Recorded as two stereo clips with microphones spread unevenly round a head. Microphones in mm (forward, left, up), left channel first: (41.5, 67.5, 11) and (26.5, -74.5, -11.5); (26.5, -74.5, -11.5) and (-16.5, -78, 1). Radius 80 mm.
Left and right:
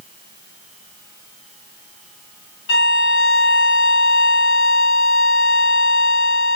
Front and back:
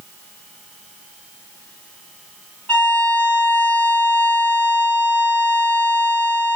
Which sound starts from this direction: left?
A violin, at 2.7 s.